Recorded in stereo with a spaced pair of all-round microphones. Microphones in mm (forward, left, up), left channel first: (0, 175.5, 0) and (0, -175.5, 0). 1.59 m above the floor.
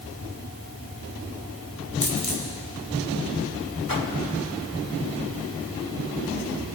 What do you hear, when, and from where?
2.0 s a dropped coin: 60° left (ahead or behind), 4 m
3.9 s a whoosh: 70° left (ahead or behind), 2 m